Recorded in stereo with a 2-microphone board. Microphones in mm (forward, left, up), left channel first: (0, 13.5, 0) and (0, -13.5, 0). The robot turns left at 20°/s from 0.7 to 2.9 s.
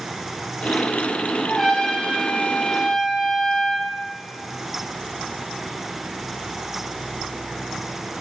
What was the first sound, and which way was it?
A trumpet, 20° left (ahead or behind).